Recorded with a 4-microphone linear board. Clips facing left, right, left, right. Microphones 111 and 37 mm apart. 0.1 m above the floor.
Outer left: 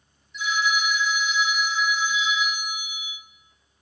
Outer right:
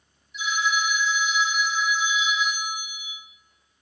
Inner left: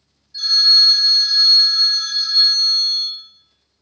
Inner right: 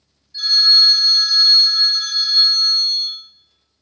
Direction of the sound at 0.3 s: 10° right (ahead or behind).